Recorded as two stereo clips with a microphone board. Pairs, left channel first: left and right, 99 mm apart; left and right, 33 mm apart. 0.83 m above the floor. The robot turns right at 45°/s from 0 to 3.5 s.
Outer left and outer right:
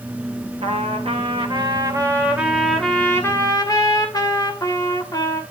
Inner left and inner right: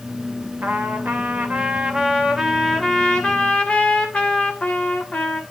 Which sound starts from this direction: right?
A trumpet, at 0.6 s.